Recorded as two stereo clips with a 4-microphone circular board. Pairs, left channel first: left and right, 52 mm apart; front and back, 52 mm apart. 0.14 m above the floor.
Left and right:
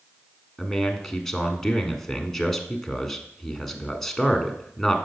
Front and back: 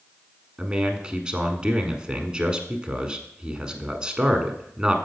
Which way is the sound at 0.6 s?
160° left.